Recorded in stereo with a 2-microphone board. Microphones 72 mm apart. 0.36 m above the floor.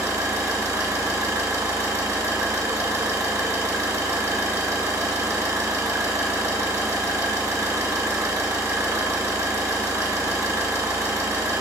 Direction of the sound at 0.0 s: 40° right (ahead or behind).